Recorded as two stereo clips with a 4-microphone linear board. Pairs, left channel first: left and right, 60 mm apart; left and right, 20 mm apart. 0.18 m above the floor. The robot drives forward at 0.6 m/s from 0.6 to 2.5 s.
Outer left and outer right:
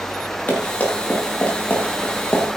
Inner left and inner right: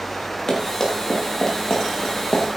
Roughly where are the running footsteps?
Left.